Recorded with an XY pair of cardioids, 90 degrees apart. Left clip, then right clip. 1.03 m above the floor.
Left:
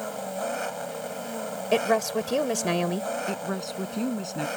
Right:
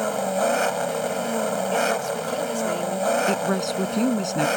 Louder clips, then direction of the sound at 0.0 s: Right 9 dB; 60° right.